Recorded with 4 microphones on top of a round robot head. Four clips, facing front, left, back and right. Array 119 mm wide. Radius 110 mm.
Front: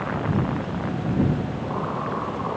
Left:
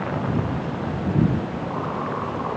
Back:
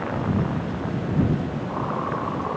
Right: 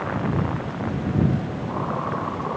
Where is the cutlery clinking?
No cutlery clinking in this recording.